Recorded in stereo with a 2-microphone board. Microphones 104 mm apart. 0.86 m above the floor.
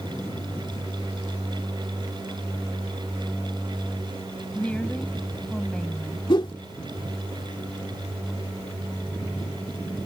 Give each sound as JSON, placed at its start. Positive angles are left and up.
{"t": 4.5, "sound": "a woman speaking", "side_deg": 15}
{"t": 6.3, "sound": "a whoosh", "side_deg": 50}